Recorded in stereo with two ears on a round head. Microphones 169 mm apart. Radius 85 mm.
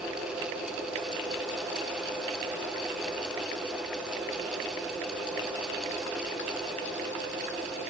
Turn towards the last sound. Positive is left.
No sound to turn to.